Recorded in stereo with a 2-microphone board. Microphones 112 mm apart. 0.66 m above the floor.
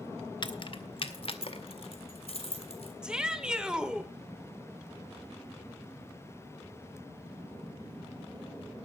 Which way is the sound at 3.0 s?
5° right (ahead or behind).